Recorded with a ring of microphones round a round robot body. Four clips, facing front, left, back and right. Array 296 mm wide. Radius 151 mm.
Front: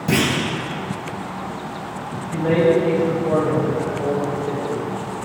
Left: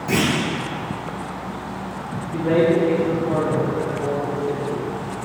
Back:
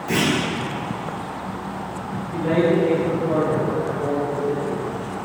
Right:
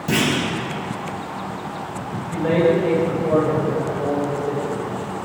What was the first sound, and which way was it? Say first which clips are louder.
A clunk: even, front 1 dB; 25° right.